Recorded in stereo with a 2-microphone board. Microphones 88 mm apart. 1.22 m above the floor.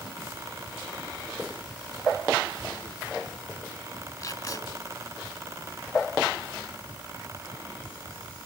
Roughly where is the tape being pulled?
Left.